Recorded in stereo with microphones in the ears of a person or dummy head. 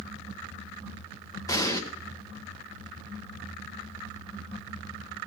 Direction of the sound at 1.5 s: 20° left (ahead or behind).